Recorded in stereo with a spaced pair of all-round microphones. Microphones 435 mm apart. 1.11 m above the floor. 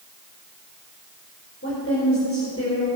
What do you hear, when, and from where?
1.6 s a woman speaking: 30° left (ahead or behind), 4.5 m